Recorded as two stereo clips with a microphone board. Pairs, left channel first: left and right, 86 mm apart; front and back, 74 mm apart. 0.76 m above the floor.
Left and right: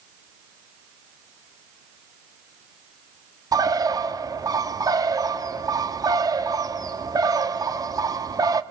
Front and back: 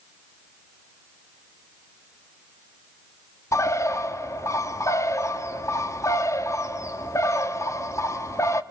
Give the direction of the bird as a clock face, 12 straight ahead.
2 o'clock.